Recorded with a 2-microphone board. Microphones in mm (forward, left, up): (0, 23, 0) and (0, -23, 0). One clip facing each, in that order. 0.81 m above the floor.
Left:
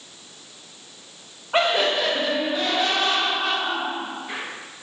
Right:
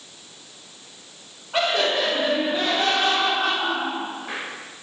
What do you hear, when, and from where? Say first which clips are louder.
1.5 s laughter: left 1 dB; 30° left (ahead or behind), 0.6 m; by 4.4 s 70° right (ahead or behind), 1.5 m